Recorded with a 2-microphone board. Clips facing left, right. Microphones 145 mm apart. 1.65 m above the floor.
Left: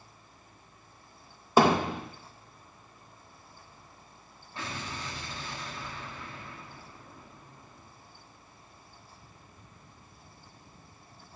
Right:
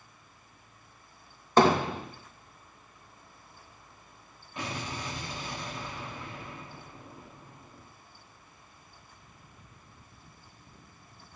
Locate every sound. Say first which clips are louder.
1.6 s hammering: even; 10° left (ahead or behind), 1.6 m
4.6 s an explosion: right 2 dB; 15° right (ahead or behind), 1.3 m